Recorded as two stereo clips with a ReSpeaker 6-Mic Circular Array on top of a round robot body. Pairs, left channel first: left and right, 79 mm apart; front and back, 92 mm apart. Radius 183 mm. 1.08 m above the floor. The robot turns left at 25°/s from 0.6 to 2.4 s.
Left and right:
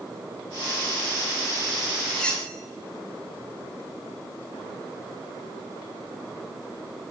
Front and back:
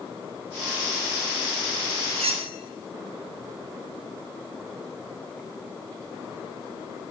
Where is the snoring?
No snoring in this recording.